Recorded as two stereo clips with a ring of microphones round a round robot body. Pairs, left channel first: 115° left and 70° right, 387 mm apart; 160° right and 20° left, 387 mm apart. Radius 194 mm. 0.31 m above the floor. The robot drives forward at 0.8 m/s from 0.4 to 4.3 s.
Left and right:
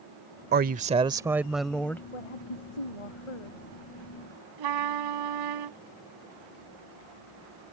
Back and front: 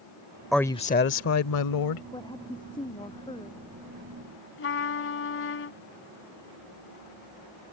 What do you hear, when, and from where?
0.5 s a woman speaking: 65° right; by 2.0 s 165° right
2.1 s a woman speaking: 120° left; by 3.7 s 125° left
4.6 s a trumpet: 100° right